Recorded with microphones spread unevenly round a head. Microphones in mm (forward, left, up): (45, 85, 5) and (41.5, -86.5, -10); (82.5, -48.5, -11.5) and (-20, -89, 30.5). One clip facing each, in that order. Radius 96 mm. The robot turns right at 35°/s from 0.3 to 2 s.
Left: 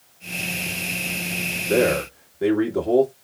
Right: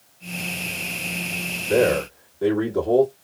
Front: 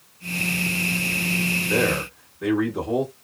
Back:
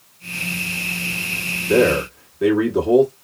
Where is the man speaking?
155° left, 1.3 m; by 3.1 s 165° left, 1.3 m.